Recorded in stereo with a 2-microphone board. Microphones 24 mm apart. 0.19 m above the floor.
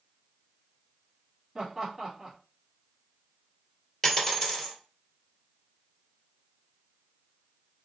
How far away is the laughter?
About 1.1 m.